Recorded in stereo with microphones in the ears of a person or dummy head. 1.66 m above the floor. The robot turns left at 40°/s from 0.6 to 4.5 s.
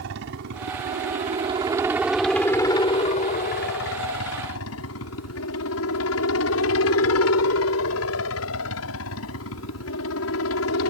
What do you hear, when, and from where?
0.0 s a helicopter: 65° right (ahead or behind); by 10.9 s 70° left (ahead or behind)